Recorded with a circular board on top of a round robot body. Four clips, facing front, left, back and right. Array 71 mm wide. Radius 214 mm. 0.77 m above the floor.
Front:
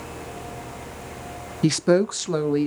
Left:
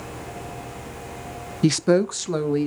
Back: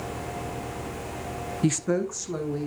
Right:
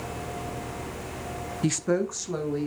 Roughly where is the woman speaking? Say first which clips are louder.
Left 7 dB, front 7 dB; ahead left.